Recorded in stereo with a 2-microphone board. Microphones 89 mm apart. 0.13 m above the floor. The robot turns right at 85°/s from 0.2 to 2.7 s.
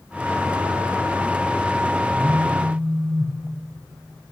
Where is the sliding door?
I don't hear a sliding door.